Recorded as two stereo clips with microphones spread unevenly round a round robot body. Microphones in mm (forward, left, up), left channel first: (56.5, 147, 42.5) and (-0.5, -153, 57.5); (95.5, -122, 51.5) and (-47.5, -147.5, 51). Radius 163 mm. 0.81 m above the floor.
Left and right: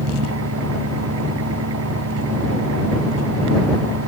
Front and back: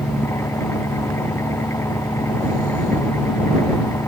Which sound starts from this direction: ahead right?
An engine running, at 0.0 s.